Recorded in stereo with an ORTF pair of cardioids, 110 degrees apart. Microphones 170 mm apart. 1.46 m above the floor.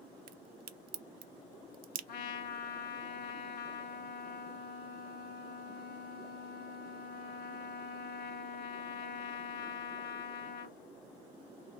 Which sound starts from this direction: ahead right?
A crack, at 0.3 s.